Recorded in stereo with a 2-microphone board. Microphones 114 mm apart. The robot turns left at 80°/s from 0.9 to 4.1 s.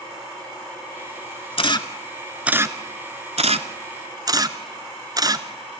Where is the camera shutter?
60° left (ahead or behind), 0.9 m; by 5.5 s 35° right (ahead or behind), 0.9 m.